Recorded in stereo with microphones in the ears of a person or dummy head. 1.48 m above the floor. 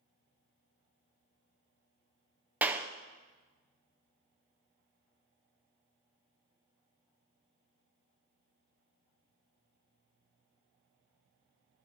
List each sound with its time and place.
2.6 s a clap: 10° right (ahead or behind), 0.5 m